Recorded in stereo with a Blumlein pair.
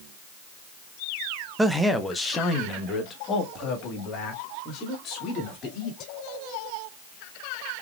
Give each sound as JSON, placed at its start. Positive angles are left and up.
{"t": 1.6, "sound": "a man speaking", "azimuth_deg": -5, "distance_m": 0.6}